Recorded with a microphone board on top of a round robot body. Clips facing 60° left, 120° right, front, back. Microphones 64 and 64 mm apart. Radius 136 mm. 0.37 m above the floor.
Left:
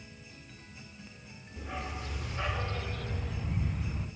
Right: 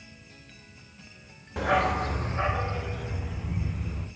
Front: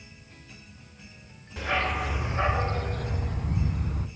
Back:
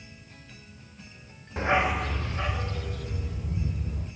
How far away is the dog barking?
About 0.8 m.